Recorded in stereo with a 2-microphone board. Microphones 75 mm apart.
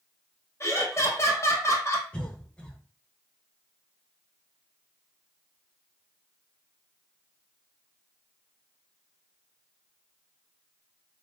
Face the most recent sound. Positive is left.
turn(degrees=15)  # may be behind; listen again after turning